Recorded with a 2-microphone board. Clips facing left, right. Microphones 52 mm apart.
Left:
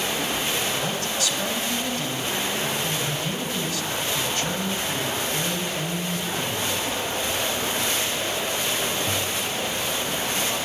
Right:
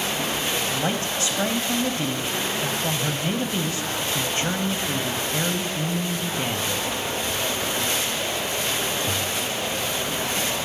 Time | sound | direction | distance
0.7 | a man speaking | 30° right (ahead or behind) | 1.4 m